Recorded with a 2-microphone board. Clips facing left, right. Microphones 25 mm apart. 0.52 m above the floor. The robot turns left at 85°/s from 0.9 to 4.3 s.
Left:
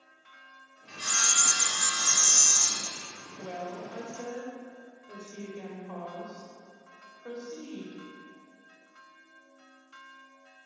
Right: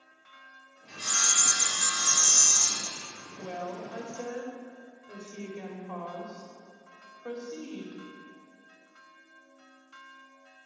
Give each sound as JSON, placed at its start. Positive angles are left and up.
{"t": 0.9, "sound": "sawing", "azimuth_deg": 140, "distance_m": 1.8}
{"t": 3.4, "sound": "a woman speaking", "azimuth_deg": -40, "distance_m": 1.9}